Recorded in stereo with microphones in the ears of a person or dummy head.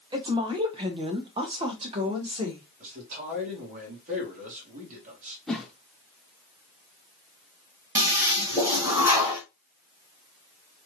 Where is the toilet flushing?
15° right (ahead or behind), 1.8 m.